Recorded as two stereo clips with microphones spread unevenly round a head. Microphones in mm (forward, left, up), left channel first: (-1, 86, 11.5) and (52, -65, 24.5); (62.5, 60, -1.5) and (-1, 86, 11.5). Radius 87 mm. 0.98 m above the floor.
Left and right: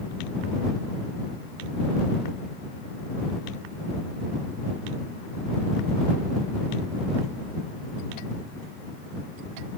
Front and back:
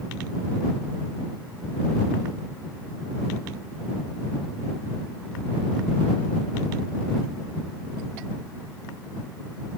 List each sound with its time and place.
Only background noise.